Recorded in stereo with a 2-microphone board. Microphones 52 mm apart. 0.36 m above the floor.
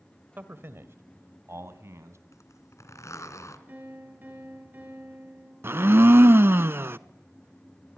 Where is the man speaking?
40° right (ahead or behind), 1.5 m; by 2.2 s 60° right (ahead or behind), 3.5 m.